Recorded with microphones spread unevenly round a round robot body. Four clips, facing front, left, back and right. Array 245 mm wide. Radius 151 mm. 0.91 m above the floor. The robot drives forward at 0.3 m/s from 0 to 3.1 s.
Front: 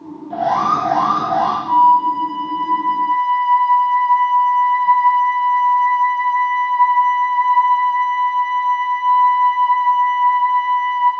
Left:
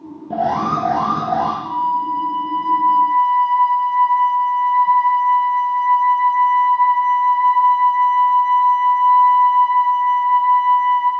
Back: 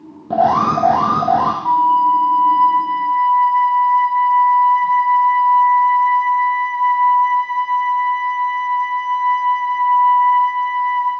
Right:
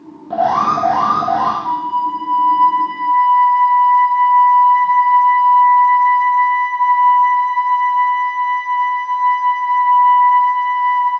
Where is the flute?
140° right, 5 m.